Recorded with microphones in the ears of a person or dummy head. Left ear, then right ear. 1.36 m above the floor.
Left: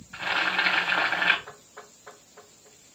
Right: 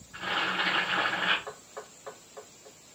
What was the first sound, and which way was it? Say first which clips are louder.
Boiling: left 4 dB; 50° left (ahead or behind).